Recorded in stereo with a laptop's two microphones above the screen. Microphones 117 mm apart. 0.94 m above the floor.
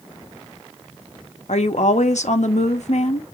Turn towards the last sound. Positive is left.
turn(degrees=75)  # may be behind; listen again after turning